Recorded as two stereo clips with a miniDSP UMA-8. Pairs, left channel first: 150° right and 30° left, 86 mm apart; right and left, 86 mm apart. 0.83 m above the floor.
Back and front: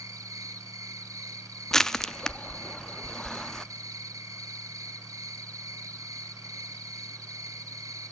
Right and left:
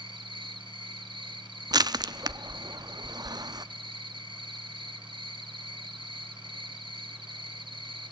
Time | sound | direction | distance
0.0 | an insect | 80° left | 1.3 m
1.7 | crushing | 125° left | 0.6 m